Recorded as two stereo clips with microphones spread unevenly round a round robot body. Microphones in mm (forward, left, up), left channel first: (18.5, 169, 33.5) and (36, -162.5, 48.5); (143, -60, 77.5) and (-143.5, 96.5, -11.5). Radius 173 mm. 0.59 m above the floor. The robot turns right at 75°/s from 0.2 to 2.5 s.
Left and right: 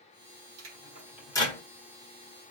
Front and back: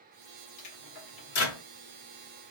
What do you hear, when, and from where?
0.6 s a microwave: 45° right, 1.9 m; by 1.6 s 35° left, 1.9 m